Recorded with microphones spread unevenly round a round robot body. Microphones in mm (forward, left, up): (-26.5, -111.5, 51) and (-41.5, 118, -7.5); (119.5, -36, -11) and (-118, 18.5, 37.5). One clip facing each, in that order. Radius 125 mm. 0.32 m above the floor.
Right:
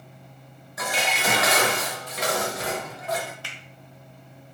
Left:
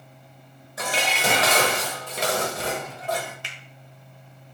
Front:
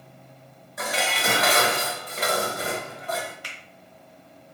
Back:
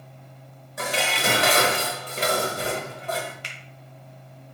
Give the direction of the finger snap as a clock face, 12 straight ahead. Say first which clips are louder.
Right 1 dB, even; 9 o'clock.